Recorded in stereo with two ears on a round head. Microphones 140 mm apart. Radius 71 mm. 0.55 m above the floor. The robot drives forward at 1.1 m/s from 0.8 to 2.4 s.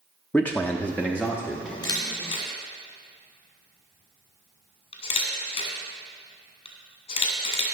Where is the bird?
No bird in this recording.